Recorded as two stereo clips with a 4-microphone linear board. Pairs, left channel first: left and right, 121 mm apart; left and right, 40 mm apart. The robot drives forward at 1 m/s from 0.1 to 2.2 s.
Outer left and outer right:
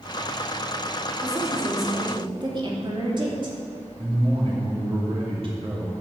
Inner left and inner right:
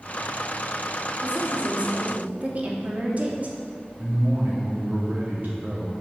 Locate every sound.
1.2 s a woman speaking: 30° right (ahead or behind), 3.5 m; by 3.6 s 40° right (ahead or behind), 2.5 m
4.0 s a man speaking: 50° right (ahead or behind), 3 m